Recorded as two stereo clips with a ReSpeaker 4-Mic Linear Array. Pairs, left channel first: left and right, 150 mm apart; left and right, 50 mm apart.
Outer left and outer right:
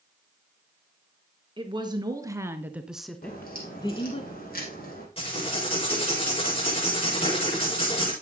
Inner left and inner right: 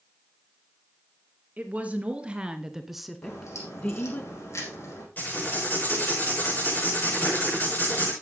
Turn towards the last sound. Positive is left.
turn(degrees=40)  # may be behind; listen again after turning